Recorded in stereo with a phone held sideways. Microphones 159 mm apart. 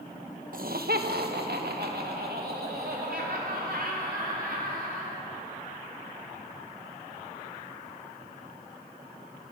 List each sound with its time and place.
0.5 s laughter: 60° right (ahead or behind), 1.0 m; by 5.2 s 70° right (ahead or behind), 5.5 m